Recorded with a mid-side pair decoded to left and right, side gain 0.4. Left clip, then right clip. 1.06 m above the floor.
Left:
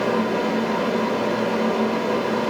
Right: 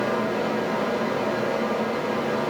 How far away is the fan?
About 0.7 m.